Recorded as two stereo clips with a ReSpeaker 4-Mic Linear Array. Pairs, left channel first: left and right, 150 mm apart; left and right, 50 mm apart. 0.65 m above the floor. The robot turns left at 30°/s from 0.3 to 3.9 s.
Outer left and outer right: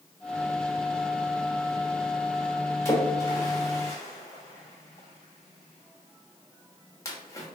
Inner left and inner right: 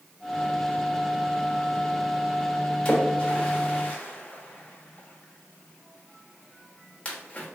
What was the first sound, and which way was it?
A splash, 20° left (ahead or behind).